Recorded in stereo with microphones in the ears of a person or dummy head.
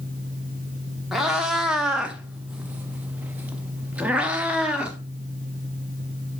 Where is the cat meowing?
5° right (ahead or behind), 1.2 m.